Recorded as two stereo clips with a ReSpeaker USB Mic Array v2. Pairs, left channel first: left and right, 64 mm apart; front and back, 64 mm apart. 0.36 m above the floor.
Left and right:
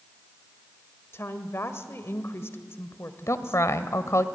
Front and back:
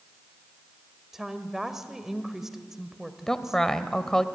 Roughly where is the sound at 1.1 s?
Left.